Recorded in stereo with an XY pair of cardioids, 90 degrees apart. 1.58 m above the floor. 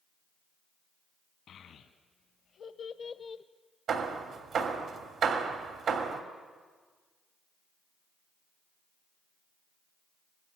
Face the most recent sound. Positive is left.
turn(degrees=-70)